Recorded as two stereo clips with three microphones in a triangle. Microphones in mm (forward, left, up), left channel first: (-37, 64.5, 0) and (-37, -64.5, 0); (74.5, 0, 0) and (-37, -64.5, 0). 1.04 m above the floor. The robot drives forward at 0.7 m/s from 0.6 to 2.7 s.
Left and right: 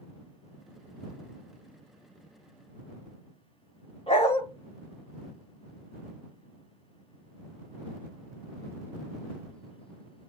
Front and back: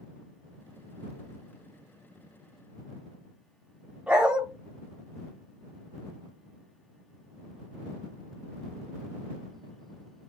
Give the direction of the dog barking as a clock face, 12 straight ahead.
8 o'clock.